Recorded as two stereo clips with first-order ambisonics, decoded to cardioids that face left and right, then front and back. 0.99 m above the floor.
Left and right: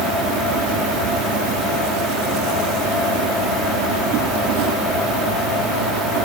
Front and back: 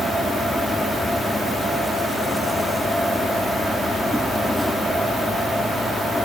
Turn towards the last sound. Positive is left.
turn(degrees=-90)